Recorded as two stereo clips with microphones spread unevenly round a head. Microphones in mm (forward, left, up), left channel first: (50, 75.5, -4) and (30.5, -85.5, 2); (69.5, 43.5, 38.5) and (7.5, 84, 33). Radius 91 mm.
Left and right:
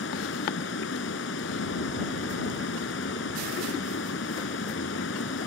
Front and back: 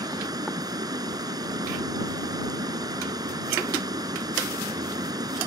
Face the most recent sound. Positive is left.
turn(degrees=115)